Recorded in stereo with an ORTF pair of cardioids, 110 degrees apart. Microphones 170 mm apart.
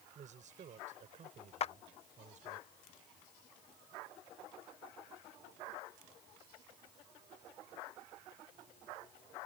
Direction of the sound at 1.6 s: 40° left.